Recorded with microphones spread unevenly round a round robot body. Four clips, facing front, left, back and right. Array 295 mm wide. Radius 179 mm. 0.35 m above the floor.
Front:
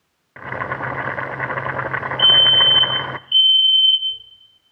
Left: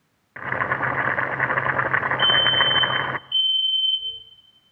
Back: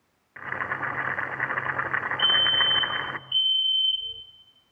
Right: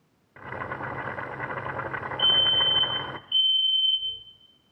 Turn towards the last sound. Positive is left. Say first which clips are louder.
# left 7 dB, front 7 dB
turn(degrees=105)